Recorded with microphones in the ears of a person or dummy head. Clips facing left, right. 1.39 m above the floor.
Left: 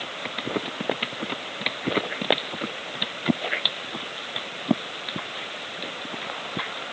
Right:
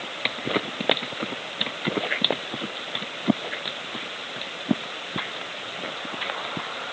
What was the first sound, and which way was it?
Only background noise.